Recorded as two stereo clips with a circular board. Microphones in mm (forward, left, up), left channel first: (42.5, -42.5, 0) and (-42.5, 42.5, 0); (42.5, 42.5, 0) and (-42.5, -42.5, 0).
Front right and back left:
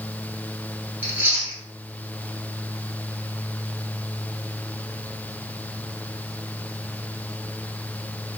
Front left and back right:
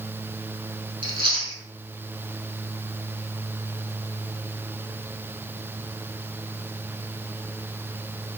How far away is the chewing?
About 1.2 m.